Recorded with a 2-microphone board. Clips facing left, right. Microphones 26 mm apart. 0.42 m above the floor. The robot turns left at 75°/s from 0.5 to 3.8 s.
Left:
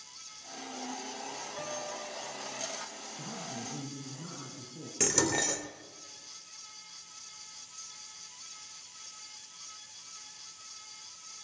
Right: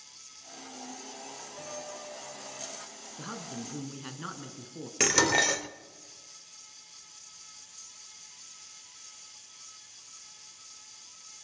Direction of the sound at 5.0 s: 35° right (ahead or behind).